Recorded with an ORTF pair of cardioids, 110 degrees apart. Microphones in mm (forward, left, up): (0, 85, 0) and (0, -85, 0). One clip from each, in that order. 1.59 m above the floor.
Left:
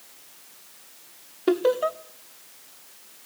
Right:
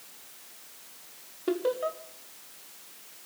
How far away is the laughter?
About 0.9 m.